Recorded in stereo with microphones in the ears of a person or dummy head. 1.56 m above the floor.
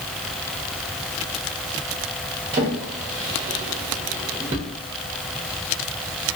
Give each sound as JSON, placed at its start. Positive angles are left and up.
{"t": 2.5, "sound": "a drawer", "side_deg": -20, "distance_m": 0.7}